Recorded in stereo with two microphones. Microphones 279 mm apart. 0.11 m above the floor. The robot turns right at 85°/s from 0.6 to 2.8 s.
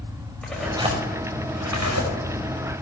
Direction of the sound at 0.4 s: 5° left (ahead or behind).